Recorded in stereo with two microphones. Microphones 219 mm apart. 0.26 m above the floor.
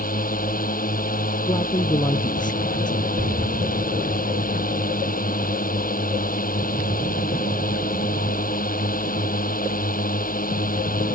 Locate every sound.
0.0 s a drone: 40° left (ahead or behind)
1.5 s a man speaking: 20° left (ahead or behind)
3.2 s an explosion: 60° right (ahead or behind)